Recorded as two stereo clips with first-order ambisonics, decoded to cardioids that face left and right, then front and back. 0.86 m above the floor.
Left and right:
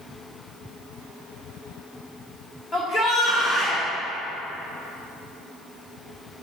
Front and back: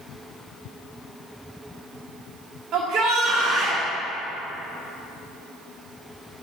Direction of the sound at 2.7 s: 140° left.